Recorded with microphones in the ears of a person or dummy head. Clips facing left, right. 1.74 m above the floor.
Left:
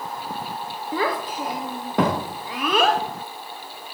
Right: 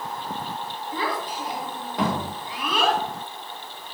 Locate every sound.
0.9 s a child speaking: 40° left (ahead or behind), 0.7 m